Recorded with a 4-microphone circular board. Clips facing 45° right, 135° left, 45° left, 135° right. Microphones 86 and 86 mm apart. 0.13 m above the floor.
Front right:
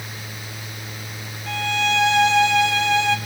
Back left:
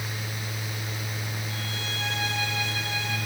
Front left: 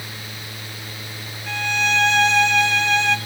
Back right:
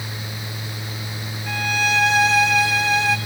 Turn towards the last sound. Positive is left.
turn(degrees=-50)